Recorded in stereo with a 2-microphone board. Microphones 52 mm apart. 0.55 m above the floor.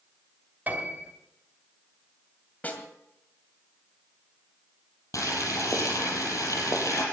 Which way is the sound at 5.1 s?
85° left.